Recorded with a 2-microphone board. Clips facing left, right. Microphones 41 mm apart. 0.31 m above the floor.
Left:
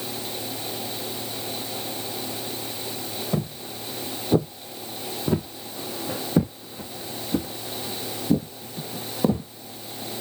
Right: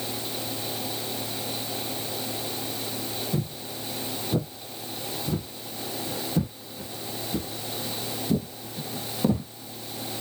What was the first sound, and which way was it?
Footsteps, 60° left (ahead or behind).